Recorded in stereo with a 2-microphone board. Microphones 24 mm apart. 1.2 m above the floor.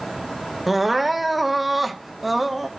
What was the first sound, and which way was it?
Crying, 5° right (ahead or behind).